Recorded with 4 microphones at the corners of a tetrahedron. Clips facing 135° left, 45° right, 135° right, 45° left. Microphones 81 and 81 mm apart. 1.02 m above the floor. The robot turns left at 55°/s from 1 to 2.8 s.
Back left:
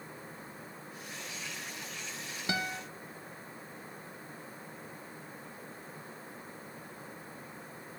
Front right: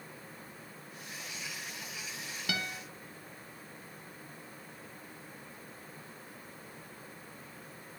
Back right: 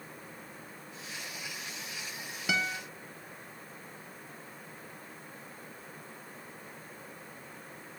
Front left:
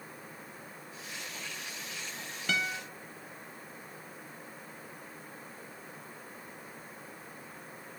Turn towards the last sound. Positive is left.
turn(degrees=135)